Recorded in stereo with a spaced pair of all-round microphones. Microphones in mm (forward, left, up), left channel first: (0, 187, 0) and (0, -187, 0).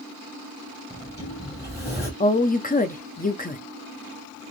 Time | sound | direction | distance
0.9 | a sliding door | 10° right (ahead or behind) | 2 m
2.2 | a woman speaking | 25° left (ahead or behind) | 0.6 m